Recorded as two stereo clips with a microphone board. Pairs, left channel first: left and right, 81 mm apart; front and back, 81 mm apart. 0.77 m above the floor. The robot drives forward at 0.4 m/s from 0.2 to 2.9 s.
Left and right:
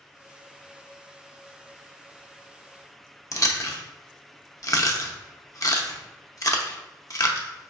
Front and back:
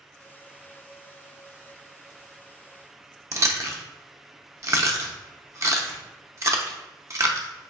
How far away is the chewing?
About 0.6 m.